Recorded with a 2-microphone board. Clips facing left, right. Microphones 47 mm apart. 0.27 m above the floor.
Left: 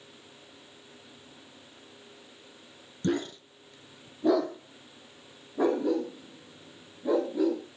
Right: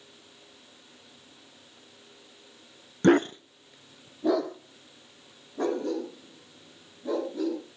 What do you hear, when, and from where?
3.0 s a dog barking: 65° right (ahead or behind), 0.7 m; by 7.6 s 10° left (ahead or behind), 6.5 m